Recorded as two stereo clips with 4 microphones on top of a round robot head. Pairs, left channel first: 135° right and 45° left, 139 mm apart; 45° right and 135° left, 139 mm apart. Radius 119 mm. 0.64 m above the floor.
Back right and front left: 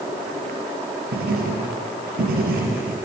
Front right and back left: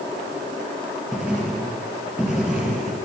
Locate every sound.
1.1 s writing: 50° left, 4 m